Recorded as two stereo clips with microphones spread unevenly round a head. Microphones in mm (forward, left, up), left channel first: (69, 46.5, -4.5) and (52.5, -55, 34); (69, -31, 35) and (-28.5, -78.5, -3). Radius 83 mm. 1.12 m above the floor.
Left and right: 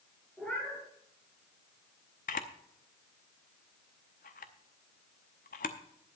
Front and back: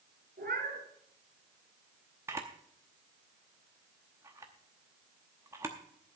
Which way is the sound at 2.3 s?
120° left.